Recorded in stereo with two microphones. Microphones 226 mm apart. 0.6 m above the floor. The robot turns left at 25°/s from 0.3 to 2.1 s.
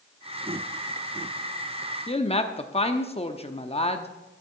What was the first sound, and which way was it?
A woman speaking, 25° left (ahead or behind).